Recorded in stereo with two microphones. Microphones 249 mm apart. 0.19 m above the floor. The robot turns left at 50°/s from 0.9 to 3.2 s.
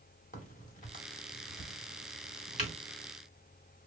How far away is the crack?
About 1.2 m.